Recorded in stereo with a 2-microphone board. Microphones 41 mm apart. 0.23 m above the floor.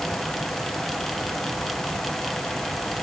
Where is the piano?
No piano in this recording.